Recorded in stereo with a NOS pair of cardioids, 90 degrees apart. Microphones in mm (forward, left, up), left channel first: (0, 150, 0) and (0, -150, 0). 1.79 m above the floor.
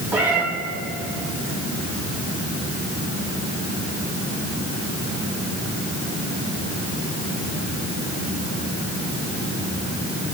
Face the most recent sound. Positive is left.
turn(degrees=-5)